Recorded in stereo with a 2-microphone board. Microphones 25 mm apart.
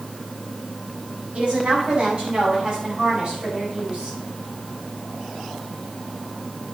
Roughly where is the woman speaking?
Right.